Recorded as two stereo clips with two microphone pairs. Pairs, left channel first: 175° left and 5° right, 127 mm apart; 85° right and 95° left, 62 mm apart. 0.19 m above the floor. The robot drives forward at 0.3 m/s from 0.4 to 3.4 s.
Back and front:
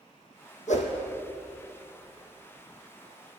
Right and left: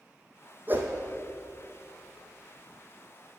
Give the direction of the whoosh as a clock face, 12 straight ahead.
7 o'clock.